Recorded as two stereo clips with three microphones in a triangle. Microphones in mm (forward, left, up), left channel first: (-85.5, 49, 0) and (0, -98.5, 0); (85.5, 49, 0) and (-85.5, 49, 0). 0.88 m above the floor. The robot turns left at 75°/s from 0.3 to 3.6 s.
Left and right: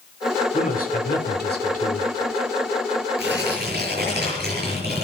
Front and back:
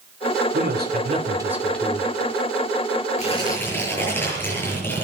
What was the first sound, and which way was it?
A man speaking, 175° left.